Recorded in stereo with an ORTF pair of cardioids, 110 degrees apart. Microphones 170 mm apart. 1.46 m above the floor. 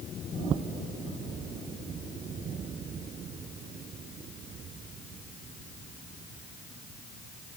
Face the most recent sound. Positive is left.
No sound to turn to.